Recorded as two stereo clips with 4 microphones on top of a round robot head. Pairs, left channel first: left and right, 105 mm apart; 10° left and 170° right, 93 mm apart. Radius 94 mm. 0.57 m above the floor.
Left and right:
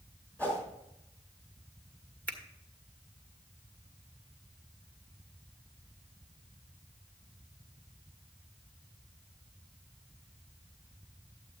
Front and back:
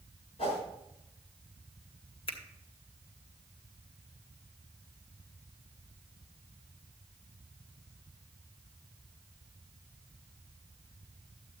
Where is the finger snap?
15° left, 1.6 m.